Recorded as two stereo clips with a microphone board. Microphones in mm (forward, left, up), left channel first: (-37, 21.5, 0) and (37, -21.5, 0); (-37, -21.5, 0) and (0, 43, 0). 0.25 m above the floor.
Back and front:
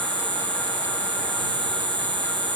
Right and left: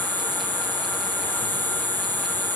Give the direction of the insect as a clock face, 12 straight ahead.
2 o'clock.